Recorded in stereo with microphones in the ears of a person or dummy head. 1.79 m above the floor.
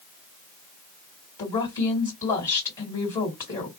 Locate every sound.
1.4 s a woman speaking: 20° left (ahead or behind), 1.8 m